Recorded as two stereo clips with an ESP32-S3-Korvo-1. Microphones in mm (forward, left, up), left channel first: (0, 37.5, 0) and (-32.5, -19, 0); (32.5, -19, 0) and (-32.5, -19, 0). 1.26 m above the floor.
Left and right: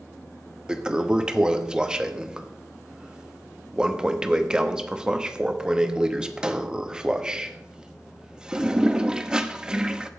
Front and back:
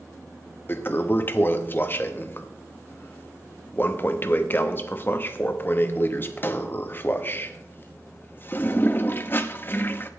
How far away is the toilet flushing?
About 0.8 m.